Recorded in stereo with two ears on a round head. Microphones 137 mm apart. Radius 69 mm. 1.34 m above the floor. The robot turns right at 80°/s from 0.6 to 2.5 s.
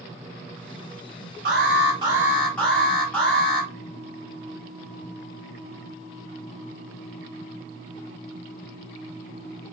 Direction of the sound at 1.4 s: 75° right.